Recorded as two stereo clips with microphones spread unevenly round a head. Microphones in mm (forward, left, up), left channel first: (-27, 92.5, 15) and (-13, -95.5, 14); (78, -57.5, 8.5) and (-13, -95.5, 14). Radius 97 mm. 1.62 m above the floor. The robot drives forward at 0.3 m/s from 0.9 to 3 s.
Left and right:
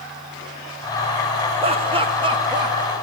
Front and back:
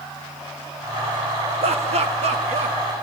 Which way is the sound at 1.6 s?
145° right.